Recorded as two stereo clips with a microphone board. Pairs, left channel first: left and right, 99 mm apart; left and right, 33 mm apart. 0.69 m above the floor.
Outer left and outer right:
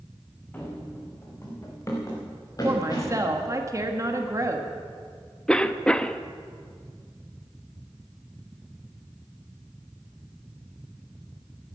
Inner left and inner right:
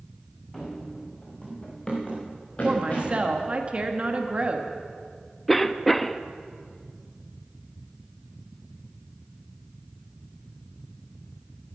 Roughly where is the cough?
Centre.